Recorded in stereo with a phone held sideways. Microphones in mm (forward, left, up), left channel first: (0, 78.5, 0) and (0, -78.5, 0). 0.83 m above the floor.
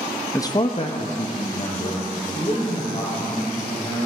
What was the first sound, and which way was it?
A man speaking, 15° left (ahead or behind).